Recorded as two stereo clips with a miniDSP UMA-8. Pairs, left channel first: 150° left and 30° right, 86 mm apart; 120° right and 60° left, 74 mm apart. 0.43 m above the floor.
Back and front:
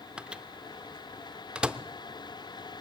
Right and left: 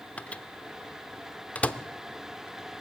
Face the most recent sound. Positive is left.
turn(degrees=-85)